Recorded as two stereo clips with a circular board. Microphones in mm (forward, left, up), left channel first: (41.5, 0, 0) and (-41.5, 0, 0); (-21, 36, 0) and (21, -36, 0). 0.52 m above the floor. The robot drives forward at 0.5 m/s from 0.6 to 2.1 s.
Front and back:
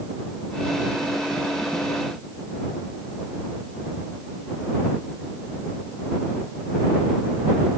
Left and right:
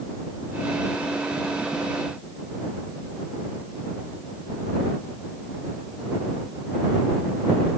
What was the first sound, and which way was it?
Only background noise.